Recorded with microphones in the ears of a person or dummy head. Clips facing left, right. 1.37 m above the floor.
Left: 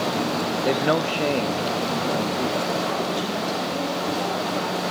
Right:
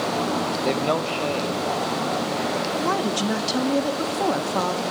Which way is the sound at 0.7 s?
10° left (ahead or behind).